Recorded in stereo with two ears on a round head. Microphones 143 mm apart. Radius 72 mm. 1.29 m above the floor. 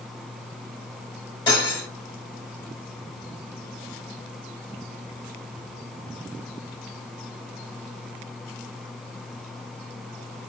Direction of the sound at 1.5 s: 30° left (ahead or behind).